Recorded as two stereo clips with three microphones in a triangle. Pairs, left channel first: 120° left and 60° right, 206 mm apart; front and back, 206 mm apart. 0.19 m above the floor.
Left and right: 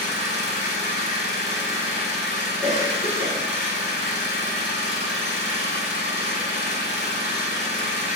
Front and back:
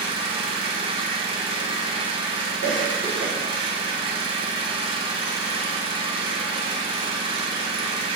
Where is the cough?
155° left, 1.6 m.